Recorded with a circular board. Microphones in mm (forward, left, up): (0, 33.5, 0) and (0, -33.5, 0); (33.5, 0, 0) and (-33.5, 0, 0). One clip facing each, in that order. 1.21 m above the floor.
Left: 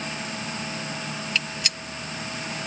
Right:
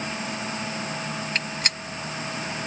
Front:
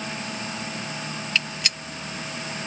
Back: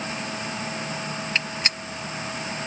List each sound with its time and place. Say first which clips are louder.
1.4 s a gunshot: even, even; 130° right